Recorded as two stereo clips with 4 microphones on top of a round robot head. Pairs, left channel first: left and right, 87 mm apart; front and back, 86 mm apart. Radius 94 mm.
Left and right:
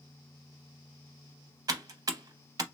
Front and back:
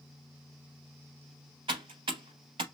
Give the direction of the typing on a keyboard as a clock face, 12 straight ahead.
4 o'clock.